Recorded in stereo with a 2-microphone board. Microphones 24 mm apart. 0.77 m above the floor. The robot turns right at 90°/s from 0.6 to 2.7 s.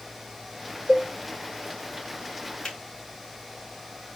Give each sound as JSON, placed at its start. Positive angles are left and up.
{"t": 0.9, "sound": "a cowbell", "side_deg": 40, "distance_m": 1.6}
{"t": 2.6, "sound": "a finger snap", "side_deg": 30, "distance_m": 3.5}